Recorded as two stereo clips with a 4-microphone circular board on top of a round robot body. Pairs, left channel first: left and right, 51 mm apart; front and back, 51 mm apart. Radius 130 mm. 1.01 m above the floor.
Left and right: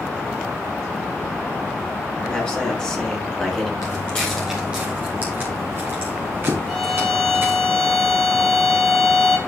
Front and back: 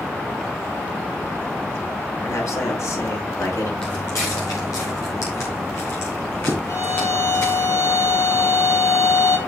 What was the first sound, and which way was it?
A man speaking, 20° left.